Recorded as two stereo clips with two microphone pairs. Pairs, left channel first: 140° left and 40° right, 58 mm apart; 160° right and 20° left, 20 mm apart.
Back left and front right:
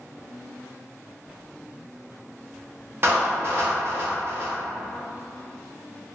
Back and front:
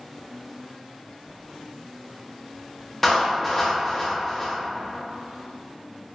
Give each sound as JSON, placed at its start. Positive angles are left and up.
{"t": 3.0, "sound": "a clap", "azimuth_deg": -85, "distance_m": 1.1}